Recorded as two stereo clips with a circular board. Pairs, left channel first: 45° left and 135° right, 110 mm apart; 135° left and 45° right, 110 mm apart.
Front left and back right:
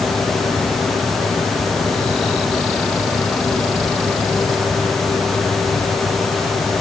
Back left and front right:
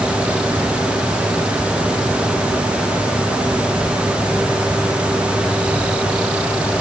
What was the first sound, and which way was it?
Only background noise.